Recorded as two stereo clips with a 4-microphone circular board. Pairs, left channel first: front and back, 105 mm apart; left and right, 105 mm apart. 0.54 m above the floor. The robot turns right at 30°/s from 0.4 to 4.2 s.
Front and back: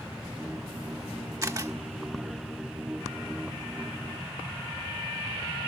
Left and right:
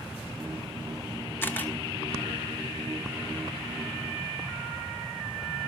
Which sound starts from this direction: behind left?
A camera shutter, at 1.4 s.